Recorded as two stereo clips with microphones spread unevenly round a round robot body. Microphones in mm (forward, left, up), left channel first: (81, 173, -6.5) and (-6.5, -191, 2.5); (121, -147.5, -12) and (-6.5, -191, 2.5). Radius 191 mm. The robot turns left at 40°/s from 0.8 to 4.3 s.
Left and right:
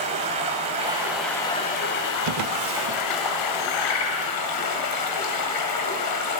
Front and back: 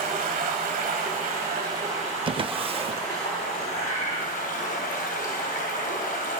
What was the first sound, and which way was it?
Running water, 175° right.